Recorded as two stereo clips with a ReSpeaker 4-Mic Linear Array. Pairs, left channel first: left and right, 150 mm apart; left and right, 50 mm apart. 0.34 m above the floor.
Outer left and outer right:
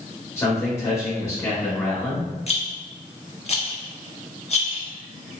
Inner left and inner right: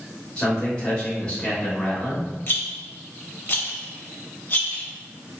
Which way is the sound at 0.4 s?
20° left (ahead or behind).